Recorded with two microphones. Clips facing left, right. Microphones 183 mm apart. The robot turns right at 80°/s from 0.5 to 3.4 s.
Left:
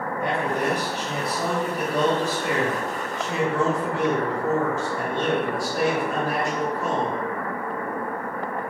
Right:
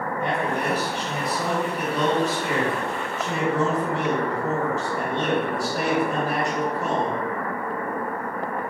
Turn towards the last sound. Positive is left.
turn(degrees=-155)